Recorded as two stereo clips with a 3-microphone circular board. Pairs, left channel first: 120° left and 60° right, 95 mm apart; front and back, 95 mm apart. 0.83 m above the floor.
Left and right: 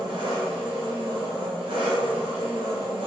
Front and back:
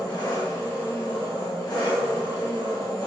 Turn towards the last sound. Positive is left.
turn(degrees=-45)